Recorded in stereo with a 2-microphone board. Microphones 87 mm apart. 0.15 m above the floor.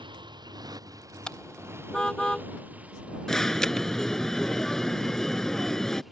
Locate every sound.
0.0 s a motorcycle: 65° right (ahead or behind); by 6.1 s centre (ahead or behind)
1.3 s a car horn: 5° left (ahead or behind)
3.3 s an alarm: 5° left (ahead or behind)